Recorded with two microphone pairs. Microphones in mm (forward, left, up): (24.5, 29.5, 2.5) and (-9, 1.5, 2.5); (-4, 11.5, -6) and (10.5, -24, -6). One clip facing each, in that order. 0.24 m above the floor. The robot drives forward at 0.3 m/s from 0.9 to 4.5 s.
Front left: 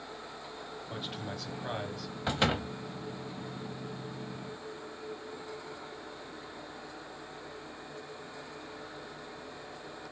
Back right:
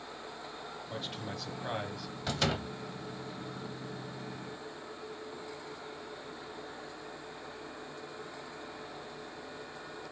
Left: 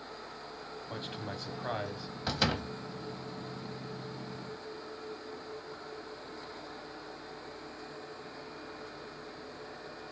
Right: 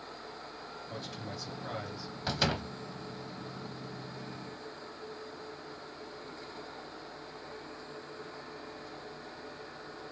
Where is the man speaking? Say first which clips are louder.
Front left 1 dB, left 2 dB; 115° left, 1.1 m; by 2.1 s 140° left, 1.2 m.